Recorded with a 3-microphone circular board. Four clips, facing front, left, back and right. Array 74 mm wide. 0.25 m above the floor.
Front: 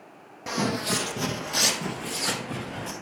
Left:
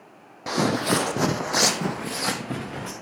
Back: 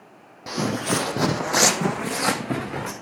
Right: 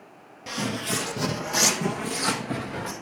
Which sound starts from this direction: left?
Footsteps, at 0.5 s.